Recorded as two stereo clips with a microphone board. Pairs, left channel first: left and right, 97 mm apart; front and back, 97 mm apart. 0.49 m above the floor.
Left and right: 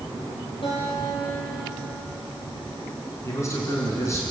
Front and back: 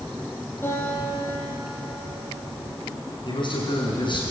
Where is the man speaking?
35° left, 6.5 m.